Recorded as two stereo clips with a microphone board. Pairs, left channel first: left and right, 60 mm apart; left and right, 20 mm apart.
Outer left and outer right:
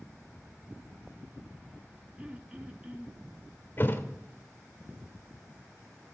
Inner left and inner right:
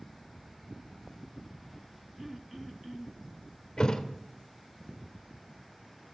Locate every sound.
2.2 s throat clearing: 20° right (ahead or behind), 0.9 m
3.8 s a thud: 35° left (ahead or behind), 1.2 m